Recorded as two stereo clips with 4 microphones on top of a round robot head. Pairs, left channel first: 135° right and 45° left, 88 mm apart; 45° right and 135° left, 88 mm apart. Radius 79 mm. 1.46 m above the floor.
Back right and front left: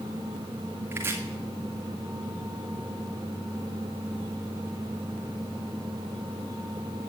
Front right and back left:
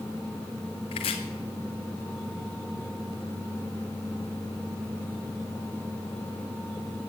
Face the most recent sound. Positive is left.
turn(degrees=-25)